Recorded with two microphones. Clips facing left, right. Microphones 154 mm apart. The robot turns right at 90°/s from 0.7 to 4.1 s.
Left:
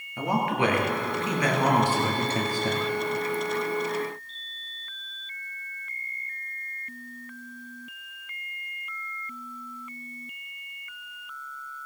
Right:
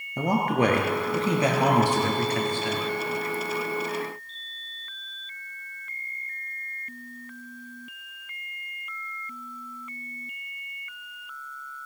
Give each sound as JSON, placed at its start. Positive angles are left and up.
{"t": 0.2, "sound": "a man speaking", "azimuth_deg": -105, "distance_m": 2.5}